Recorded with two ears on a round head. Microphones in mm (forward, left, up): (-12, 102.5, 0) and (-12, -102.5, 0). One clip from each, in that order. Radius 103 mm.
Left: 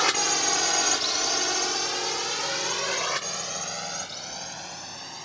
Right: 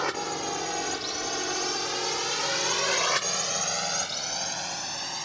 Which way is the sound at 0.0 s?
75° left (ahead or behind).